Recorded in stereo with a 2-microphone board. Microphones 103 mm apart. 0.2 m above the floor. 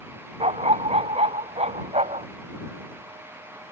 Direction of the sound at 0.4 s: 85° right.